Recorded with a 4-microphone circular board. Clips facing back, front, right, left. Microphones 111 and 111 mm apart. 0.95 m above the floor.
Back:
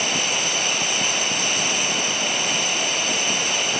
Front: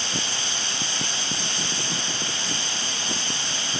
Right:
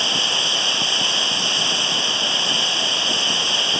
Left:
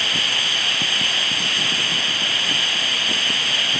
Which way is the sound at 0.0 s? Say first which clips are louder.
Back 6 dB, right 2 dB; 150° right.